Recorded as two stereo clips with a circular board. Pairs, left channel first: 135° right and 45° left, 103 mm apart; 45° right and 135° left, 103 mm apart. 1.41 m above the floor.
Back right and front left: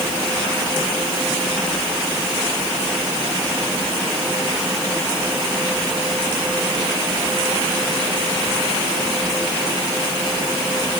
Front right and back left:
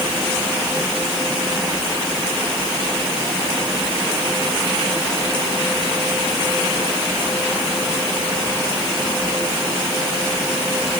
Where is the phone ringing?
I don't hear a phone ringing.